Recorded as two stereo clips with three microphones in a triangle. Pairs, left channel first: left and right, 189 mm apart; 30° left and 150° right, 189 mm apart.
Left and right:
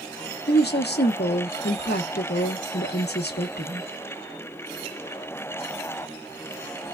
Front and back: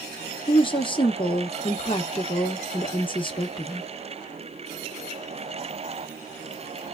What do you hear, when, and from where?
0.5 s a woman speaking: 90° left, 0.8 m